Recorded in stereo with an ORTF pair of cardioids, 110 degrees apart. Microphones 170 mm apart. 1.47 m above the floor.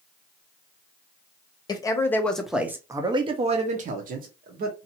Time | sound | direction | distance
1.7 | a man speaking | 25° left | 1.0 m